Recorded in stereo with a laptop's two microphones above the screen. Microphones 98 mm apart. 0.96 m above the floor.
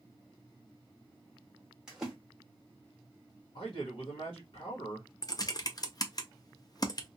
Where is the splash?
5° right (ahead or behind), 0.9 m.